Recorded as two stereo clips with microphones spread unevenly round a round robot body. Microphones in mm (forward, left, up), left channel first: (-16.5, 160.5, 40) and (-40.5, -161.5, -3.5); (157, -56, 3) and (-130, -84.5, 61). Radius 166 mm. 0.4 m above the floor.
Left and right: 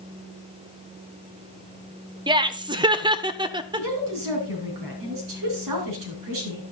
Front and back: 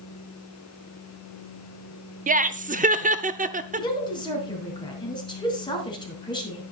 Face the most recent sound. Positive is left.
turn(degrees=-65)